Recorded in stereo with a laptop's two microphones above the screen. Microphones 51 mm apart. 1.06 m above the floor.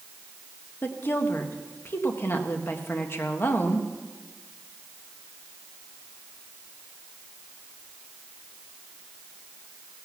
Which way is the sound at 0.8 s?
45° left (ahead or behind).